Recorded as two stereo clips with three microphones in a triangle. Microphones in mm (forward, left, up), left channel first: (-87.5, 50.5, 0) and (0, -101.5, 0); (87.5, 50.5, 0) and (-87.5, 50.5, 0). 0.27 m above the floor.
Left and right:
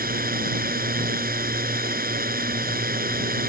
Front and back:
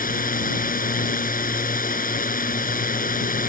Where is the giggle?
I don't hear a giggle.